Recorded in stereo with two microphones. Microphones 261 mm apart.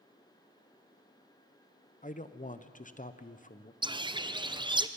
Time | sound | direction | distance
2.0 | a man speaking | 30° left (ahead or behind) | 0.8 m
3.8 | a bird | 20° right (ahead or behind) | 0.6 m